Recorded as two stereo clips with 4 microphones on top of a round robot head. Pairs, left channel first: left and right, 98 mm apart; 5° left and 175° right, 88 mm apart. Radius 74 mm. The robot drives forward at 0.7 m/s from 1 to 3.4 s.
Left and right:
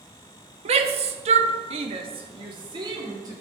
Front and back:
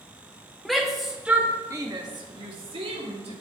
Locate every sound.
0.7 s a shout: 80° right, 1.0 m; by 3.3 s 150° right, 1.8 m